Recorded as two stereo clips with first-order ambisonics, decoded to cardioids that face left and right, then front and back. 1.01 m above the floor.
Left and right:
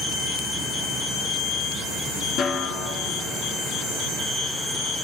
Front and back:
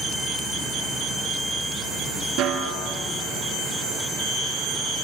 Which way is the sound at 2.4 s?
135° left.